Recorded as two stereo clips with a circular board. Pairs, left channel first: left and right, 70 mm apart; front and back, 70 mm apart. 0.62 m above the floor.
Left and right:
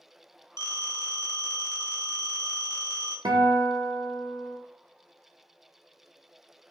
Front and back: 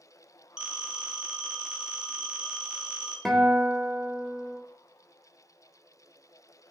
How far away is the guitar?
About 0.6 m.